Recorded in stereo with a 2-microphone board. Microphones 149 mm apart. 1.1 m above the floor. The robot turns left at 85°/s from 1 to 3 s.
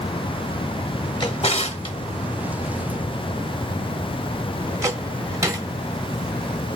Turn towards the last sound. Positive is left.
turn(degrees=-20)  # may be behind; listen again after turning